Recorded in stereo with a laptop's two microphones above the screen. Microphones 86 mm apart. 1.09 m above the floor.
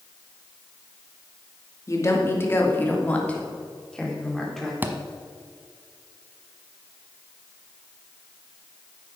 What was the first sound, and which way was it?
A woman speaking, 35° left (ahead or behind).